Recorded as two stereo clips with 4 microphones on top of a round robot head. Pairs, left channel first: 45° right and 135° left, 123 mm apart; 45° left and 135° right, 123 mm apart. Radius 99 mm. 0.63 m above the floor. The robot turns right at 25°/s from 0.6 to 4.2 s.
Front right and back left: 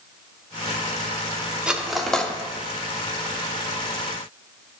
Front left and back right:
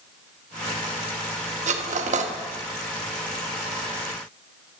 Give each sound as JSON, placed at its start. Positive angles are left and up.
{"t": 1.7, "sound": "cutlery clinking", "azimuth_deg": -140, "distance_m": 0.9}